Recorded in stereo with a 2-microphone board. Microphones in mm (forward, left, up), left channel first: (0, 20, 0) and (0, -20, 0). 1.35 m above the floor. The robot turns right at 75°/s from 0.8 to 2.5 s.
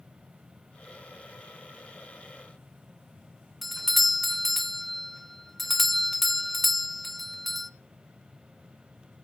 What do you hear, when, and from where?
3.6 s a doorbell: 5° left (ahead or behind), 0.6 m